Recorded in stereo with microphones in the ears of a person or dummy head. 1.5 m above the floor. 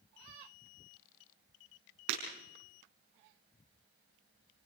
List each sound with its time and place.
2.1 s breaking glass: 70° right (ahead or behind), 6 m